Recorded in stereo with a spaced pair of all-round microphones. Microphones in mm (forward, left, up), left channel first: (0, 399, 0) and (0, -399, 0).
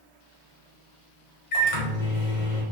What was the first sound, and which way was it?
A microwave, 70° left (ahead or behind).